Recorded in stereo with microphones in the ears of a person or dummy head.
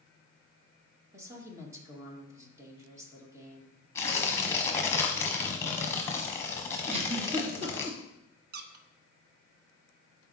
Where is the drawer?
I don't hear a drawer.